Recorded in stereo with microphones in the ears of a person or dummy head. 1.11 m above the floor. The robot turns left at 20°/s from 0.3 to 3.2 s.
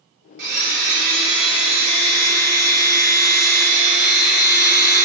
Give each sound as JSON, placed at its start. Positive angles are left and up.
{"t": 0.4, "sound": "a blender", "azimuth_deg": -70, "distance_m": 1.5}